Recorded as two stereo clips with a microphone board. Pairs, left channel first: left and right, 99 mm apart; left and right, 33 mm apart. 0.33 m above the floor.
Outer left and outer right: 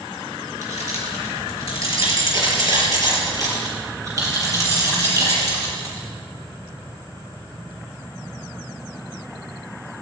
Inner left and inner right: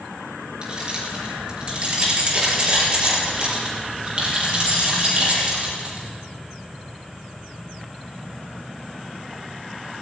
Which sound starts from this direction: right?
Keys jangling, at 0.6 s.